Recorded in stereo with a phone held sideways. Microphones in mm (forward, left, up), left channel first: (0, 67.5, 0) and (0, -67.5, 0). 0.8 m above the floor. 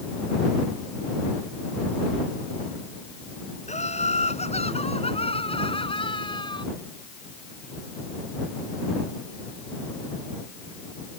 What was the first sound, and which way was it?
Laughter, 60° left (ahead or behind).